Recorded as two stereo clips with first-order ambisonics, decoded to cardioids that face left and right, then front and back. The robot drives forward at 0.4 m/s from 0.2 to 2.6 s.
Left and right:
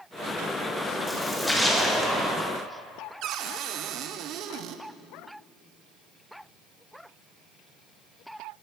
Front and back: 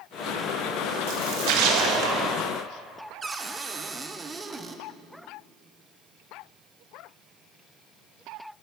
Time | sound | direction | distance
1.1 | a splash | straight behind | 1.6 m
3.2 | a cupboard door | 110° right | 0.7 m